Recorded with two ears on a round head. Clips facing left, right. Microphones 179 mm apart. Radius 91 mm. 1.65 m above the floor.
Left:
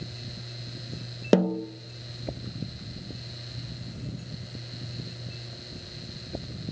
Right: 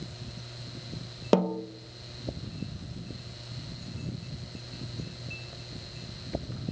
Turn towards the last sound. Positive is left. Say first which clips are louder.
# left 3 dB
turn(degrees=15)  # may be behind; listen again after turning